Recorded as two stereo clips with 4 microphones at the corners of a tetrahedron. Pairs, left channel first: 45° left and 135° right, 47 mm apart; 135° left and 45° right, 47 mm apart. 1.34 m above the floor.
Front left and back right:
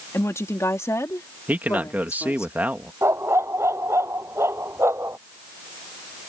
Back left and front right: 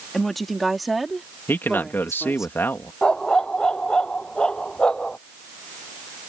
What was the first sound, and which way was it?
A woman speaking, 50° left.